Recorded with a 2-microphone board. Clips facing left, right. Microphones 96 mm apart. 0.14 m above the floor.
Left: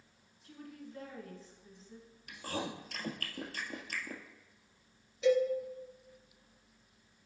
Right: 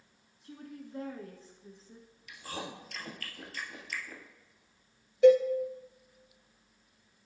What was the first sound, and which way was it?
A woman speaking, 35° right (ahead or behind).